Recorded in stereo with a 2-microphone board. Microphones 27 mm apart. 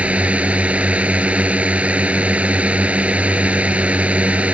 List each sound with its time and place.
0.0 s a drone: 55° right (ahead or behind)